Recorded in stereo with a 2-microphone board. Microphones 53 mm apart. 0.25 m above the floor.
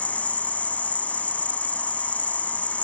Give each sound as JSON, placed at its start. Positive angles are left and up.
{"t": 0.0, "sound": "an insect", "side_deg": 25, "distance_m": 0.7}